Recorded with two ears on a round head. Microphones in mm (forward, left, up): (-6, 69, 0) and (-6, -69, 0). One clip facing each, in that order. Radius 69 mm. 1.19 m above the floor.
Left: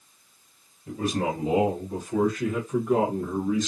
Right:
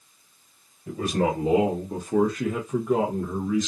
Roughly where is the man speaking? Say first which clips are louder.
Right 3 dB; right.